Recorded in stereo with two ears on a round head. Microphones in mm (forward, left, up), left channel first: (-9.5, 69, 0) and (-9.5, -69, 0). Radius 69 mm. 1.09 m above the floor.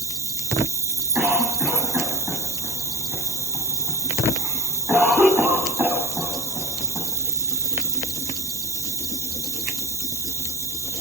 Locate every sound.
0.0 s an insect: 20° right (ahead or behind), 0.9 m
1.1 s a cough: 15° right (ahead or behind), 9 m